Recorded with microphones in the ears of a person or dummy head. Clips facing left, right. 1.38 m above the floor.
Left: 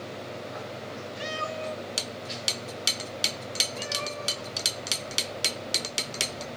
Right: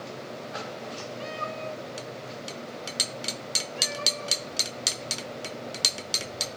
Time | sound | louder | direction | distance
1.2 | a cat meowing | left 3 dB | 25° left (ahead or behind) | 1.4 m